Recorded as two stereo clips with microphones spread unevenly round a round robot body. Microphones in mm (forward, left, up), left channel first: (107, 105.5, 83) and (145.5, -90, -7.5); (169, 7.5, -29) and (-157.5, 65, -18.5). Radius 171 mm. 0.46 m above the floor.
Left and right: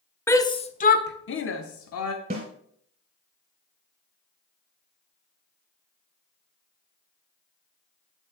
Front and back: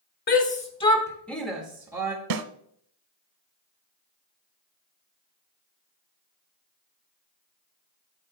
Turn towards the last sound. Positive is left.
turn(degrees=-160)